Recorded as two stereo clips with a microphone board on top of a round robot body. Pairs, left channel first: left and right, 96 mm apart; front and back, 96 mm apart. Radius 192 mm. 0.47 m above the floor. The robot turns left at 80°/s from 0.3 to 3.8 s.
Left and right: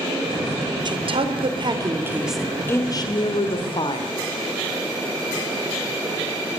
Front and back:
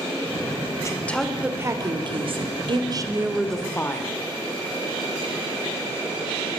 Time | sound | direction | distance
0.8 | a woman speaking | 55° right | 3 m